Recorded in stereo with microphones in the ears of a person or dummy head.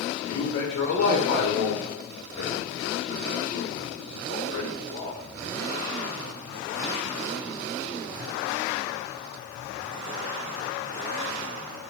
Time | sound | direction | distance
0.2 | a man speaking | 40° left (ahead or behind) | 1.1 m